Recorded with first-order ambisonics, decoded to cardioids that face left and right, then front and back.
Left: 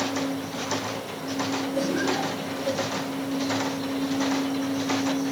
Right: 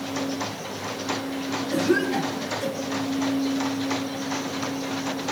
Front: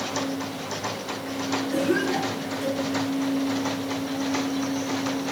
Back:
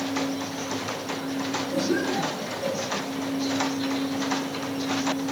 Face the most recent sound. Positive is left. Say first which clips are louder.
# right 6 dB, front 2 dB
turn(degrees=-80)